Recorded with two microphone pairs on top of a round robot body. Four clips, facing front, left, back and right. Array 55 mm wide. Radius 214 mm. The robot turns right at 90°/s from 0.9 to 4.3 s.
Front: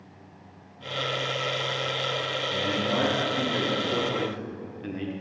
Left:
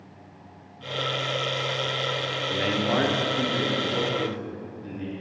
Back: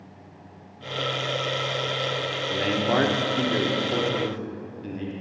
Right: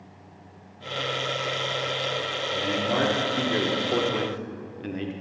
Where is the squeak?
No squeak in this recording.